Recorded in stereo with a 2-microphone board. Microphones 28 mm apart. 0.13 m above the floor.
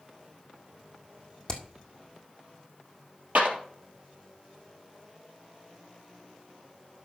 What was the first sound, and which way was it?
Hammering, 25° left (ahead or behind).